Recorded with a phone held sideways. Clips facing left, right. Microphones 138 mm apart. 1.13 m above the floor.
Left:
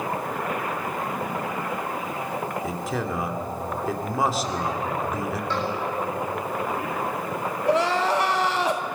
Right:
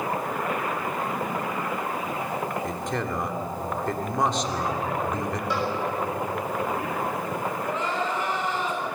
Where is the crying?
85° left, 1.6 m.